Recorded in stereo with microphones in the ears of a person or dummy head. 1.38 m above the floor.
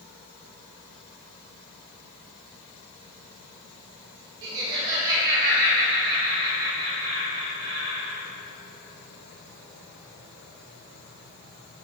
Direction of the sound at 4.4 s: 75° right (ahead or behind).